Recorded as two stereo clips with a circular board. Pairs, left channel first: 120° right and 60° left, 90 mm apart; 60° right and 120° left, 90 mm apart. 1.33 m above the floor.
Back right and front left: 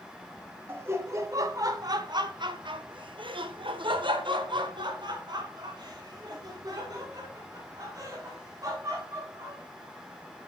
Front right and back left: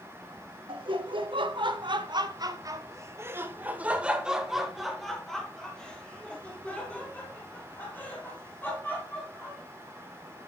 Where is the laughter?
125° left, 1.4 m; by 9.6 s 5° left, 3.5 m.